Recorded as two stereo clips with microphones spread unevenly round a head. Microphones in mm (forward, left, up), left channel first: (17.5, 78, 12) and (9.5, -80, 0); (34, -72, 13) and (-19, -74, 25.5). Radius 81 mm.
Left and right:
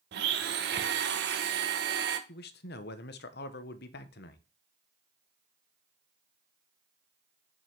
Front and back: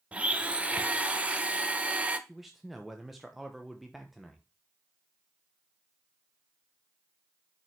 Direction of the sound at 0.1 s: 105° right.